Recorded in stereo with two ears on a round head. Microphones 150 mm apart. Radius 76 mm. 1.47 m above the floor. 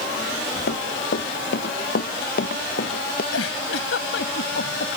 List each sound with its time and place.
0.7 s running footsteps: 70° left (ahead or behind); by 3.2 s 60° left (ahead or behind)
3.3 s a giggle: 75° left (ahead or behind)